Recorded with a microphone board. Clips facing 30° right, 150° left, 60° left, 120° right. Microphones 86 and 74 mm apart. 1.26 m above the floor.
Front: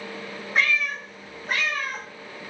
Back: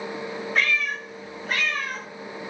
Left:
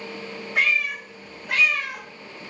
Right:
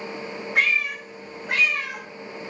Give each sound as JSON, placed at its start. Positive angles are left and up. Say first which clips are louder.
{"t": 0.6, "sound": "a cat meowing", "louder": "front 1 dB, even", "azimuth_deg": -105, "distance_m": 1.4}